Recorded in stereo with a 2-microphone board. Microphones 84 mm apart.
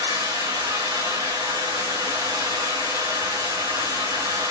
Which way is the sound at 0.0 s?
80° right.